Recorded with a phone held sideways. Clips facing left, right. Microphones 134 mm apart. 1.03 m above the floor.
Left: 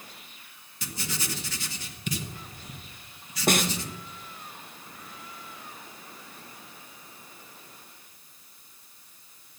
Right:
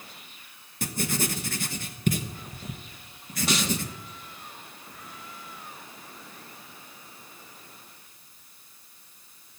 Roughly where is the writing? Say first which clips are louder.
Right 8 dB; right.